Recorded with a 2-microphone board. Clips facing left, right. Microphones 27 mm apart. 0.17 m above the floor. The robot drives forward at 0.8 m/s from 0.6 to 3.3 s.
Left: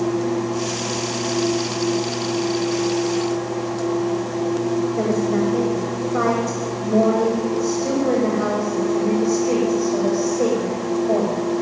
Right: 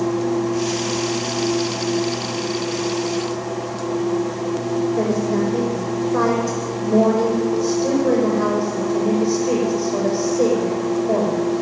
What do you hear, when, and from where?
5.0 s a woman speaking: 55° right (ahead or behind), 8.5 m